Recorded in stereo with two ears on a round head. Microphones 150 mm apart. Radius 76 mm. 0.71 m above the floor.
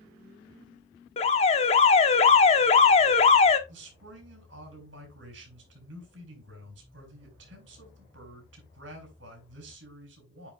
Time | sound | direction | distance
1.2 | an alarm | 35° left (ahead or behind) | 1.1 m
3.7 | a man speaking | 80° right | 5 m